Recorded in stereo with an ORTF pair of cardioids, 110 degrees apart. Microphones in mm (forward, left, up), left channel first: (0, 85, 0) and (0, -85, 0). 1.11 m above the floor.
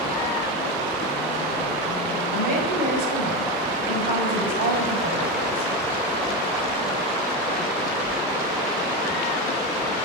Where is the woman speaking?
55° right, 5.5 m.